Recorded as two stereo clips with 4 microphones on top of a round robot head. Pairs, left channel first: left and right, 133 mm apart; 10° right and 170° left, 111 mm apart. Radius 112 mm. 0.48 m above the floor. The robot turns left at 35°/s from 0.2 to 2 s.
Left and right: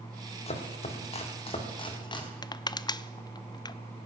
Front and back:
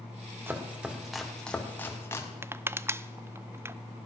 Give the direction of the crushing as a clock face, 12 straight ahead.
8 o'clock.